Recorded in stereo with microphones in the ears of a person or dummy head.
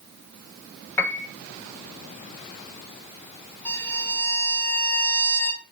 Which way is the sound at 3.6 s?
15° left (ahead or behind).